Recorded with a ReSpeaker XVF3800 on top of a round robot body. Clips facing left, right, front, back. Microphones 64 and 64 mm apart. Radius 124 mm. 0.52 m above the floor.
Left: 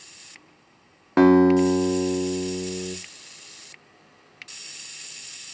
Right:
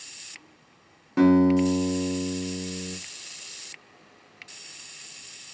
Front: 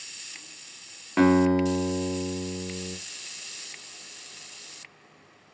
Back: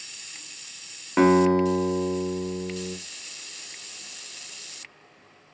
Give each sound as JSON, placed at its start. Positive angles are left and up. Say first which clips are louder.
{"t": 1.2, "sound": "a guitar", "louder": "left 3 dB, back 2 dB", "azimuth_deg": 100, "distance_m": 0.8}